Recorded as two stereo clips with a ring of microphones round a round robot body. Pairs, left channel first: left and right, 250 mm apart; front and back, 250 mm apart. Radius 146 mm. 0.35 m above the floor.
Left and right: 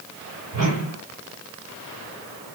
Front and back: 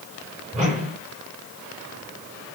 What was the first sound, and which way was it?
A whoosh, 120° right.